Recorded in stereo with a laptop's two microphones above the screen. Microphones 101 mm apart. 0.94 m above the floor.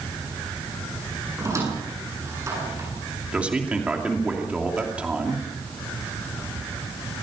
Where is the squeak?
30° right (ahead or behind), 8 m.